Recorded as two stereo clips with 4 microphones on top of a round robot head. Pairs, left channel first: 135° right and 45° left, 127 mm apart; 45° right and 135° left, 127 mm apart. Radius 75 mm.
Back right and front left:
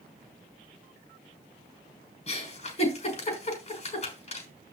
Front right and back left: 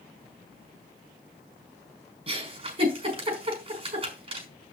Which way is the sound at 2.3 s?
175° right.